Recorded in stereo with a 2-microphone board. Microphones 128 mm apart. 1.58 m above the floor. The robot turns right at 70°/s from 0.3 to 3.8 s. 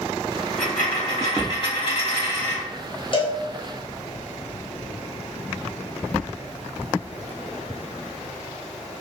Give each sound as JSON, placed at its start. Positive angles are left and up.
{"t": 0.6, "sound": "a dropped coin", "azimuth_deg": 10, "distance_m": 1.6}
{"t": 3.1, "sound": "a cowbell", "side_deg": 40, "distance_m": 0.7}